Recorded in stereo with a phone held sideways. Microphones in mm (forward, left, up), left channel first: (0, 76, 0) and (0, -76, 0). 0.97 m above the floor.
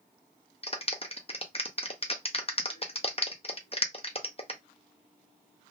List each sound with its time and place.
0.6 s a clap: 40° left (ahead or behind), 0.6 m